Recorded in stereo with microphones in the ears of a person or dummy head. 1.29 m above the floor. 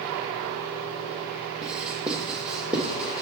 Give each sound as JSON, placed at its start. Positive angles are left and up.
{"t": 1.6, "sound": "writing", "side_deg": -5, "distance_m": 1.2}